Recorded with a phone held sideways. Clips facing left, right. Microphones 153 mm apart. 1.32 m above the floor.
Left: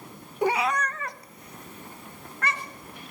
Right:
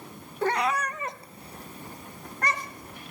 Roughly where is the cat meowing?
Centre.